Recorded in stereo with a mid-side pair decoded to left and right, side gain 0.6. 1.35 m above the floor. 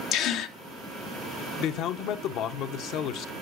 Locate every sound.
0.1 s a gasp: 70° left, 0.8 m
1.6 s a man speaking: 65° left, 0.9 m